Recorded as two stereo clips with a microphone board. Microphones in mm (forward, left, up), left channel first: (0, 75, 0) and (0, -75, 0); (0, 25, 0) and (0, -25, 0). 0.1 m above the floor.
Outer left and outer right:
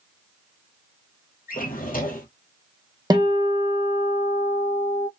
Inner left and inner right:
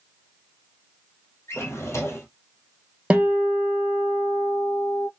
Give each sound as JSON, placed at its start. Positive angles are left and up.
{"t": 1.5, "sound": "a drawer", "side_deg": 65, "distance_m": 0.9}
{"t": 3.1, "sound": "a guitar", "side_deg": -25, "distance_m": 0.6}